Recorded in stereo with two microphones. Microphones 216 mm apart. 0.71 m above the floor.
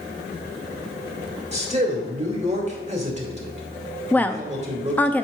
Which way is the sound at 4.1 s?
10° left (ahead or behind).